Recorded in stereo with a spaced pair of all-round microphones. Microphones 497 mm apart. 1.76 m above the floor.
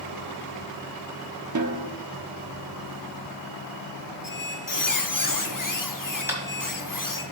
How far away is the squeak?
About 0.8 m.